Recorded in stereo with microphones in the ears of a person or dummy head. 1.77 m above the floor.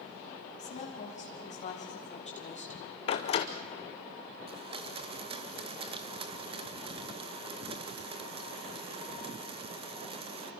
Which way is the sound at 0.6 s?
40° left (ahead or behind).